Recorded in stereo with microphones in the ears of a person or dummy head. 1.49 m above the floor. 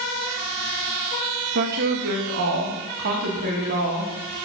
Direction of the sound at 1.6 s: 60° right (ahead or behind).